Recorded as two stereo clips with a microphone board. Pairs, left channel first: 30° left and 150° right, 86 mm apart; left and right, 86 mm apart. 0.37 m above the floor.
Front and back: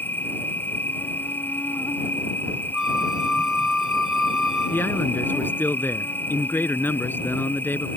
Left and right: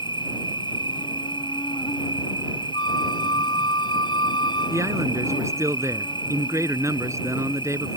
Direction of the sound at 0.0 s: 95° left.